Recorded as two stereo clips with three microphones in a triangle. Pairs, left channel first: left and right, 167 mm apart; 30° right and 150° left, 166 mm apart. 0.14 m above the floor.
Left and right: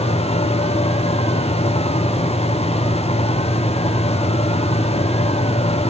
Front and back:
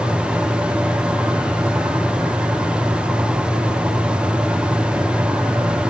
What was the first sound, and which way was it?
Only background noise.